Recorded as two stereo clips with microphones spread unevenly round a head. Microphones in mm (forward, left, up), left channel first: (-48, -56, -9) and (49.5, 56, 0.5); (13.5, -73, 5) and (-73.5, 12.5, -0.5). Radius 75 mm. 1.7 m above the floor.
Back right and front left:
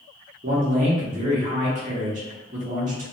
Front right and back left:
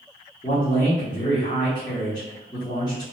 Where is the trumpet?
No trumpet in this recording.